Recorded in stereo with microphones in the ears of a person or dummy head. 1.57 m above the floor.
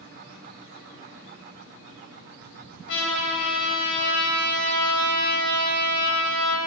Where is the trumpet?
65° left (ahead or behind), 3.5 m.